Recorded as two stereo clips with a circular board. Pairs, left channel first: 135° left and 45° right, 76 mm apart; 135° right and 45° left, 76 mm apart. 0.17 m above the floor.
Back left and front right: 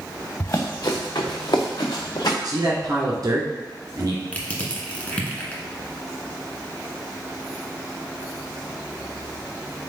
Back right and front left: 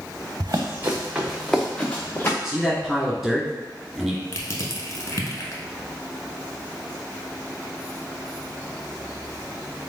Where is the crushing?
160° right, 0.9 m.